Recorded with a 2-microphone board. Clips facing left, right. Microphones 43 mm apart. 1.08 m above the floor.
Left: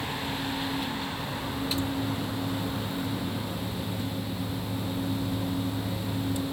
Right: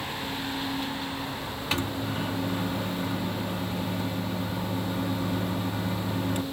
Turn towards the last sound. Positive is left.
turn(degrees=-55)  # may be behind; listen again after turning